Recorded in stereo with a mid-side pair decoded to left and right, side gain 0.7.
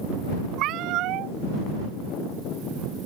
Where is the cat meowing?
60° right.